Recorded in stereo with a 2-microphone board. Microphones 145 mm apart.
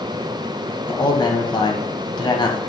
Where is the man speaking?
30° left (ahead or behind), 1.5 m.